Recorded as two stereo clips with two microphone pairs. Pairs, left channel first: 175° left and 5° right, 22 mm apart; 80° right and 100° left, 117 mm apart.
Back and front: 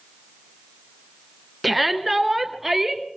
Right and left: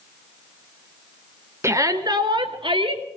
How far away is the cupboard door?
I don't hear a cupboard door.